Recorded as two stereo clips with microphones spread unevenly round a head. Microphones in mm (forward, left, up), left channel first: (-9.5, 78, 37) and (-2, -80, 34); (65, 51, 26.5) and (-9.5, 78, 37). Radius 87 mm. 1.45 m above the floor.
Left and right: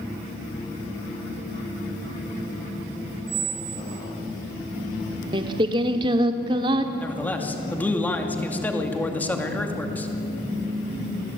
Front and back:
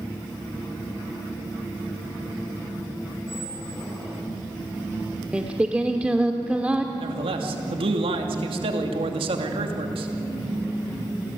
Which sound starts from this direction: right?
A squeak, at 3.3 s.